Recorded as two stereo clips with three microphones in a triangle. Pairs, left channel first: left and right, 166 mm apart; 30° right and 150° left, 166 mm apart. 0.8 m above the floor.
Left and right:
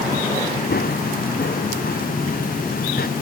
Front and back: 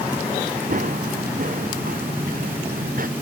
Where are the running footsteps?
115° left.